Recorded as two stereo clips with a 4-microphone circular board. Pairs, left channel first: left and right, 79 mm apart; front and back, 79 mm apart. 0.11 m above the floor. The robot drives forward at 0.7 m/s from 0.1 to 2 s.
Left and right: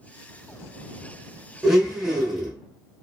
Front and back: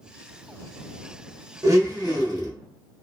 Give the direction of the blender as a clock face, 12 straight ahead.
6 o'clock.